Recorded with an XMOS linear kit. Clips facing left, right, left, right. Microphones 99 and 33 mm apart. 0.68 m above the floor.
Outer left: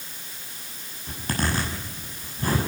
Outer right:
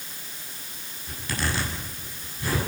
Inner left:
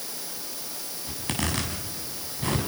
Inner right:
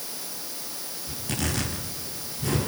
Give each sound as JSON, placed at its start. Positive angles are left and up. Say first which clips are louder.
{"t": 1.1, "sound": "a zipper", "louder": "outer left 3 dB, inner left 1 dB", "side_deg": 45, "distance_m": 7.0}